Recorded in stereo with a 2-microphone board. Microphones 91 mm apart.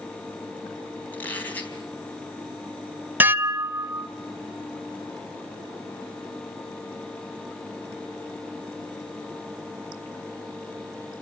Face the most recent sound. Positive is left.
turn(degrees=-20)  # may be behind; listen again after turning